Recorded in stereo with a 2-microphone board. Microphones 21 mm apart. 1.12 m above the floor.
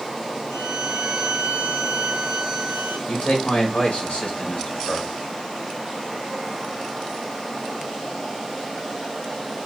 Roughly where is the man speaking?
Left.